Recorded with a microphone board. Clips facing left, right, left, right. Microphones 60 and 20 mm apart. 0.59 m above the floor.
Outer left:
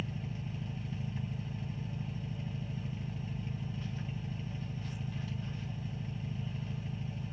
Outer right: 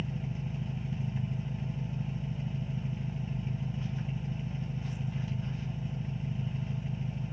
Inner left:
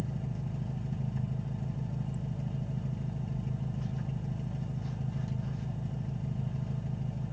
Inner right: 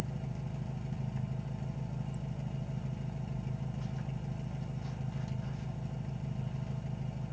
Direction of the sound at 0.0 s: 5° right (ahead or behind).